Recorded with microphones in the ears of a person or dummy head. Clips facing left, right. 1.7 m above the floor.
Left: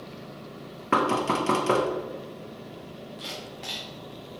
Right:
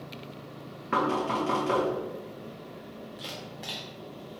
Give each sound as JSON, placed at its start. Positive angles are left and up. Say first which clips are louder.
{"t": 0.9, "sound": "knocking", "louder": "left 3 dB", "side_deg": 60, "distance_m": 0.8}
{"t": 3.2, "sound": "a camera shutter", "louder": "left 2 dB", "side_deg": -5, "distance_m": 0.6}